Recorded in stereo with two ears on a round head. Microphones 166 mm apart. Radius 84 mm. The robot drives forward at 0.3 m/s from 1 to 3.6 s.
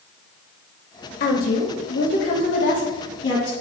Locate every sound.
1.2 s a woman speaking: 55° left (ahead or behind), 0.6 m; by 3.5 s 35° left (ahead or behind), 0.8 m